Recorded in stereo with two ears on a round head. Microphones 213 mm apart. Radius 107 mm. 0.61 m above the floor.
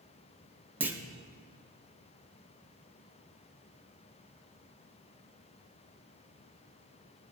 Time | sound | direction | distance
0.8 | a clunk | 10° right (ahead or behind) | 0.8 m